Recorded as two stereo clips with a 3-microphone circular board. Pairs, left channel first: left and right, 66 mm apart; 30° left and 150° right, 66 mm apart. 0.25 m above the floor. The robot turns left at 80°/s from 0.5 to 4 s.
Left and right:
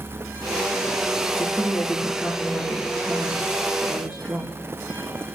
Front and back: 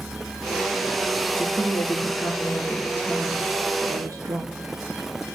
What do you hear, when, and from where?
1.3 s a woman speaking: 45° left, 4 m; by 4.5 s 170° right, 4 m